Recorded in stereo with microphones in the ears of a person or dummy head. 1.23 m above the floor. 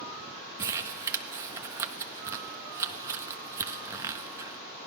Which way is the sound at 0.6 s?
20° right (ahead or behind).